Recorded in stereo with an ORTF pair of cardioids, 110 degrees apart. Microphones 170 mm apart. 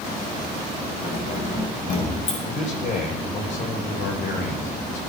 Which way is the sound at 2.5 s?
50° left.